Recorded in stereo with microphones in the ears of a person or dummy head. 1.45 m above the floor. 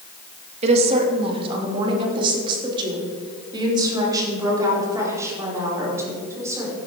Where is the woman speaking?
35° right (ahead or behind), 2 m; by 6.8 s 15° right (ahead or behind), 5 m.